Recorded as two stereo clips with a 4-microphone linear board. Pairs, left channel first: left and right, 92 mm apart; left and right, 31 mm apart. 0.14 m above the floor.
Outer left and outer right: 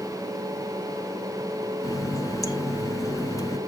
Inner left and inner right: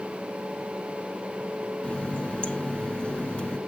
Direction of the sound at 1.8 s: 40° left (ahead or behind).